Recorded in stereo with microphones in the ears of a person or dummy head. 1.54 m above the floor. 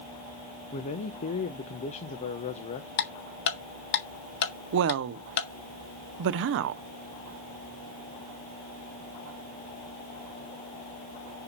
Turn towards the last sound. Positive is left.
turn(degrees=-55)  # may be behind; listen again after turning